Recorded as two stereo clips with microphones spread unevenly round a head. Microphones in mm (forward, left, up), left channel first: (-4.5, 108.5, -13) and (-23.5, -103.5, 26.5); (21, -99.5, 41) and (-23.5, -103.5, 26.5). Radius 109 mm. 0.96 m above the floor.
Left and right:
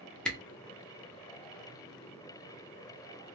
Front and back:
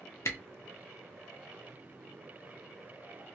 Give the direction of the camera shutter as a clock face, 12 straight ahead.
12 o'clock.